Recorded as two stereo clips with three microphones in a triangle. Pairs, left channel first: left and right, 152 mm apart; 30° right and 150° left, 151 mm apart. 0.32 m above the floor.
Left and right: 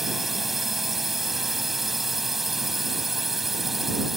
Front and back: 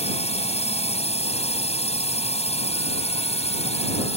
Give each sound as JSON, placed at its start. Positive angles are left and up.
{"t": 0.0, "sound": "a drone", "azimuth_deg": 0}